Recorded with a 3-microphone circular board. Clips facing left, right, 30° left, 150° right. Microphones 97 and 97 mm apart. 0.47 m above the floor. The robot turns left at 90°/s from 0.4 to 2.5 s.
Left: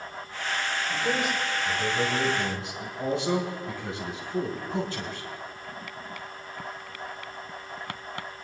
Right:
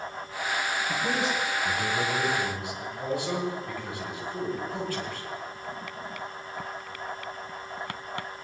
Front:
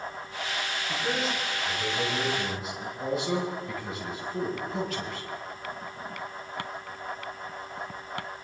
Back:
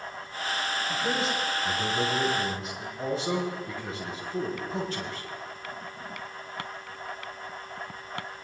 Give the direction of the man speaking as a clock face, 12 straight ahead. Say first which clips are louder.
Left 1 dB, even; 2 o'clock.